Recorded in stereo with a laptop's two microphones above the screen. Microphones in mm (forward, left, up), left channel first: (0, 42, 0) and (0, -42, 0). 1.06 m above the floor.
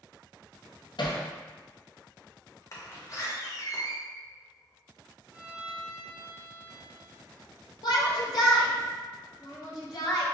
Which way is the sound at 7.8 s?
55° left (ahead or behind).